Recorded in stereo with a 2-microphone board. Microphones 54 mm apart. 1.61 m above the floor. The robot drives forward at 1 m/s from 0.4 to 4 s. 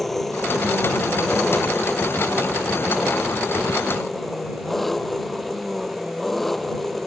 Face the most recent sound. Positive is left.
turn(degrees=0)  # may be behind; listen again after turning